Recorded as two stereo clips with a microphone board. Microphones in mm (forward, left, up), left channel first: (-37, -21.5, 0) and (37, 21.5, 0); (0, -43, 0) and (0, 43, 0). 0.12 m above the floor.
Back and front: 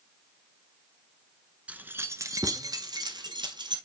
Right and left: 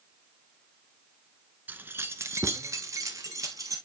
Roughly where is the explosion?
I don't hear an explosion.